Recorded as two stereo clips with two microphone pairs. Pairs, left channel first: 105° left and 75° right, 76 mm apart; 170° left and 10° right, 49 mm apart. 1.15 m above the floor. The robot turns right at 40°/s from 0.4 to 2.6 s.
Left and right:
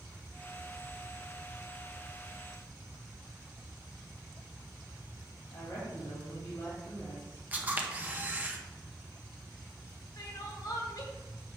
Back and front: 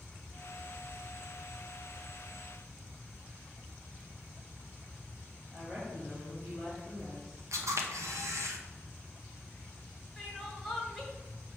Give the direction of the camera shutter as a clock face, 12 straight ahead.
12 o'clock.